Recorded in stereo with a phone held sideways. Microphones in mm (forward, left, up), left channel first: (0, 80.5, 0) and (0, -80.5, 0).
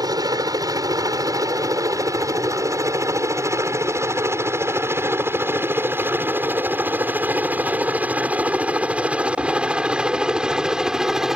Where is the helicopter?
25° right (ahead or behind); by 11.4 s centre (ahead or behind).